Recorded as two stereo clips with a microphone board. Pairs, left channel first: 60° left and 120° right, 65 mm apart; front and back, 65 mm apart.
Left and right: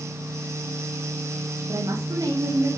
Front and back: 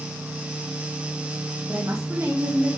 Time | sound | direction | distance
1.7 | a woman speaking | 130° right | 1.4 m